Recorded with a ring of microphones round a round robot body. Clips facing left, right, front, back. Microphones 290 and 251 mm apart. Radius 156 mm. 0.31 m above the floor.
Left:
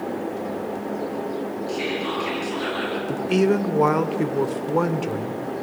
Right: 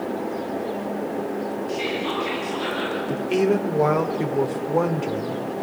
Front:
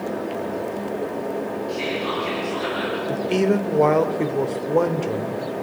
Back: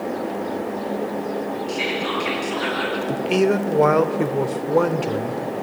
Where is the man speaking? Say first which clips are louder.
Left 1 dB, back 1 dB; 110° left, 1.2 m.